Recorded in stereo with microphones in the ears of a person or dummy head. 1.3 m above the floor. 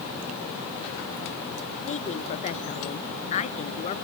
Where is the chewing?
I don't hear chewing.